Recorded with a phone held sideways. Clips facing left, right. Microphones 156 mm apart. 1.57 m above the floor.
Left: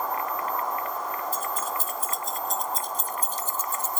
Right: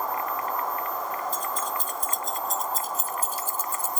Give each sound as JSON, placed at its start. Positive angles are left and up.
{"t": 1.3, "sound": "keys jangling", "side_deg": 5, "distance_m": 1.1}